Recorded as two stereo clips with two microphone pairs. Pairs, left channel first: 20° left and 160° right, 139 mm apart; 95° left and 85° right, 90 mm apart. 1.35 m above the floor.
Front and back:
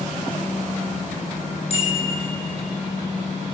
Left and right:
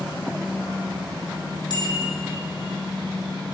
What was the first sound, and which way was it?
A bicycle bell, 60° left.